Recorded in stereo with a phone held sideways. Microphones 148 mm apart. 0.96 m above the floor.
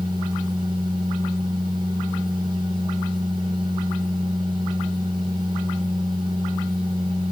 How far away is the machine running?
About 5 m.